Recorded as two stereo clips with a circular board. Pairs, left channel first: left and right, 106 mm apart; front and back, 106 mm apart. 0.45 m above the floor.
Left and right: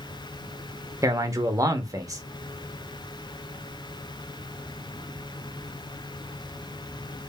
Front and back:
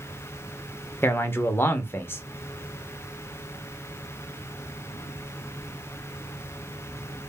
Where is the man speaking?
55° right, 0.9 m.